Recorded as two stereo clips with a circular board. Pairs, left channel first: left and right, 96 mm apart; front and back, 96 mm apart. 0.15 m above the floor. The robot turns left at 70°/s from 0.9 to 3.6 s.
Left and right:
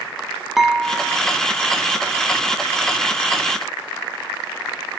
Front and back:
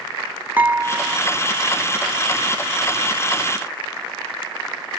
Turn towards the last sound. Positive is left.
turn(degrees=0)